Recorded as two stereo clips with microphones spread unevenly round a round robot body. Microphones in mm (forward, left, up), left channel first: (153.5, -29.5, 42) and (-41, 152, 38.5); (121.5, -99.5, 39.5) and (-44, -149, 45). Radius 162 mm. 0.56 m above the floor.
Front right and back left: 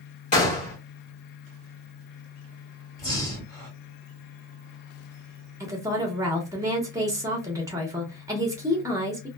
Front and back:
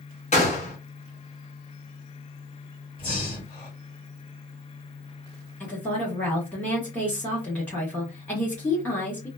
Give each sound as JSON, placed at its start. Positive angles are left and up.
{"t": 0.3, "sound": "a gunshot", "azimuth_deg": 0, "distance_m": 1.7}
{"t": 3.0, "sound": "breathing", "azimuth_deg": 30, "distance_m": 1.5}
{"t": 5.6, "sound": "a woman speaking", "azimuth_deg": 80, "distance_m": 1.0}